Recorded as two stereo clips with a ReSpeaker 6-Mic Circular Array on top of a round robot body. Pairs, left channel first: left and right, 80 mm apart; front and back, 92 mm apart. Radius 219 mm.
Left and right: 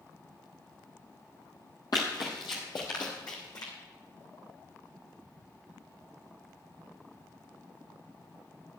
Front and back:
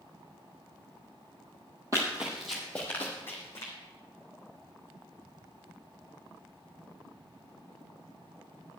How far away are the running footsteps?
About 0.7 m.